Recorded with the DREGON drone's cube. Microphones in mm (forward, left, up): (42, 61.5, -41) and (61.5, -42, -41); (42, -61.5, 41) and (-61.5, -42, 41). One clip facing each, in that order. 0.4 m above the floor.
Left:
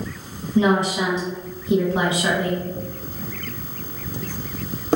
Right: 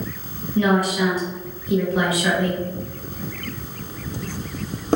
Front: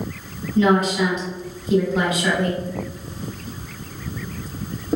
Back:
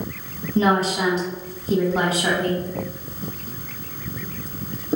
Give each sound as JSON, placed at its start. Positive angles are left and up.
{"t": 0.6, "sound": "a woman speaking", "azimuth_deg": 140, "distance_m": 0.9}